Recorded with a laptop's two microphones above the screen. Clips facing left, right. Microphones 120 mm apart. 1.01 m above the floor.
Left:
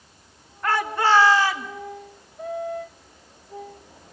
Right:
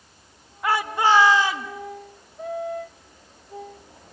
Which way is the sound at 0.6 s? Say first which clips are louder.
Right 1 dB; 10° right (ahead or behind).